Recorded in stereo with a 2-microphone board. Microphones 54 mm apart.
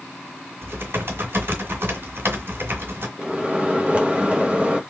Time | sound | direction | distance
0.6 | typing on a keyboard | 55° right (ahead or behind) | 1.8 m
3.2 | a microwave | 25° right (ahead or behind) | 0.7 m